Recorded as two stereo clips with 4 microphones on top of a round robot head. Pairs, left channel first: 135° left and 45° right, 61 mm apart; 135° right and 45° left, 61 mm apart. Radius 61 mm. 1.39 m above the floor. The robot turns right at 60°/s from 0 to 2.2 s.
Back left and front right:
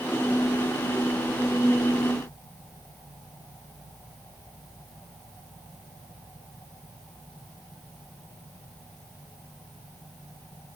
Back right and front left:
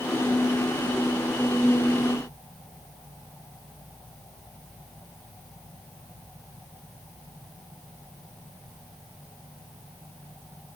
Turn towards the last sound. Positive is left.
No sound to turn to.